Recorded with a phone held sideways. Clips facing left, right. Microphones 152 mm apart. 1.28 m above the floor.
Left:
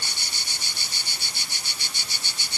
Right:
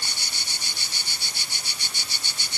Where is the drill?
No drill in this recording.